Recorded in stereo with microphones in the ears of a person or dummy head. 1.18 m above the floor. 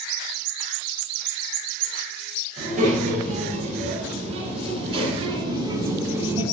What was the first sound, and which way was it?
A child speaking, 45° right (ahead or behind).